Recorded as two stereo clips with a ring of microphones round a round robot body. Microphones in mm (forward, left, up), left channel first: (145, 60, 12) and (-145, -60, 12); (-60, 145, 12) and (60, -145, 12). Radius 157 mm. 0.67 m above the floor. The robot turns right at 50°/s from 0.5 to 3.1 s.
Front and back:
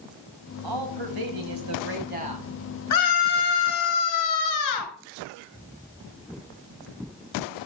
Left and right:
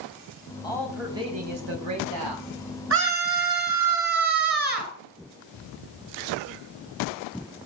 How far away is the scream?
About 7.5 m.